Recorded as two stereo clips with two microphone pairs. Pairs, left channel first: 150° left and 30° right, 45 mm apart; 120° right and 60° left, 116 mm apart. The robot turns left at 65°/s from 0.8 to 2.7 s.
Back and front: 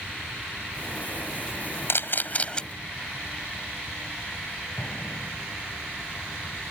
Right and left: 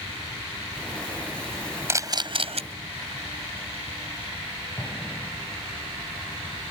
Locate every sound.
1.9 s a camera shutter: 125° left; by 2.6 s 80° left
4.8 s an explosion: 175° left